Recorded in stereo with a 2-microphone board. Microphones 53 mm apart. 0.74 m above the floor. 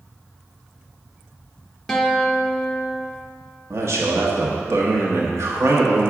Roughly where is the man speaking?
Right.